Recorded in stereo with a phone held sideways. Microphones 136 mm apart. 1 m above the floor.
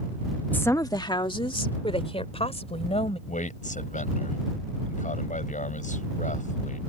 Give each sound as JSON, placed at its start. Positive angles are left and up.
{"t": 0.5, "sound": "a woman speaking", "side_deg": 10}
{"t": 3.3, "sound": "a man speaking", "side_deg": 70}